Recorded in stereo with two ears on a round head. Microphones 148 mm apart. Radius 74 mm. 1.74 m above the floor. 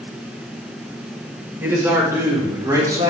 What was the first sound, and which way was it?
A man speaking, 15° right (ahead or behind).